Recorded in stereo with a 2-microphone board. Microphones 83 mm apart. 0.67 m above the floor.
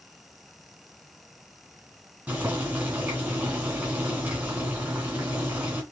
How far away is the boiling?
About 2.5 m.